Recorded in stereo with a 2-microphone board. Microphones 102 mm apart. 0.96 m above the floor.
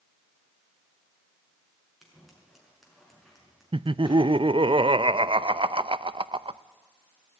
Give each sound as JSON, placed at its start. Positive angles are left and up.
{"t": 2.0, "sound": "scissors", "side_deg": 0, "distance_m": 5.0}
{"t": 3.7, "sound": "laughter", "side_deg": -55, "distance_m": 0.5}